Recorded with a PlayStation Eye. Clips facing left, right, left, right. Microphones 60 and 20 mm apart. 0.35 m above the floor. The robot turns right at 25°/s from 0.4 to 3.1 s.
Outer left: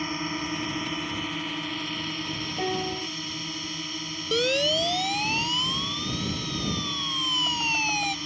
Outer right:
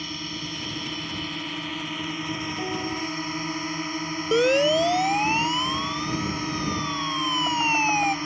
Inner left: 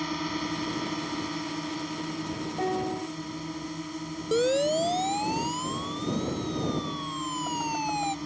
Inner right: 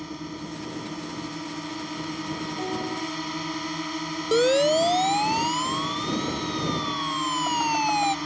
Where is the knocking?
No knocking in this recording.